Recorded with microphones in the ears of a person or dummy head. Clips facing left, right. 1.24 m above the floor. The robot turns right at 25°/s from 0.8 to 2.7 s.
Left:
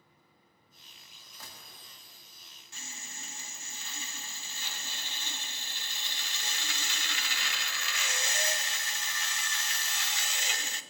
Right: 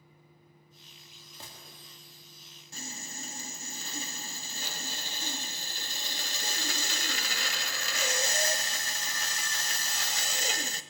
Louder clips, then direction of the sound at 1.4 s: Right 2 dB; 20° right (ahead or behind).